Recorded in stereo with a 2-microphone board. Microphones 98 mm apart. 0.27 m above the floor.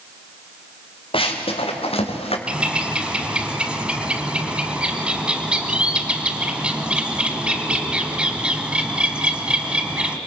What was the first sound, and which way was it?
Running footsteps, 65° left (ahead or behind).